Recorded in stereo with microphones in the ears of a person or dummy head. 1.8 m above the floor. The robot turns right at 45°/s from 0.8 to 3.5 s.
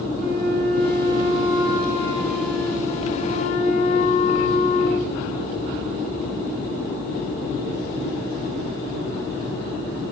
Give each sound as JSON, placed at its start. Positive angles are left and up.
{"t": 0.2, "sound": "a flute", "azimuth_deg": -70, "distance_m": 1.5}